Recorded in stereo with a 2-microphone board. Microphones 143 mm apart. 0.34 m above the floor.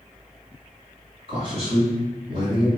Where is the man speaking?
40° right (ahead or behind), 1.6 m.